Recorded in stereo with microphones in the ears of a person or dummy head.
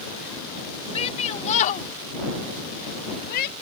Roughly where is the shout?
Left.